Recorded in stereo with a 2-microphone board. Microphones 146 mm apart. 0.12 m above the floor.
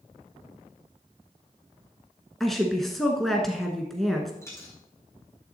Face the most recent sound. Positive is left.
turn(degrees=20)  # may be behind; listen again after turning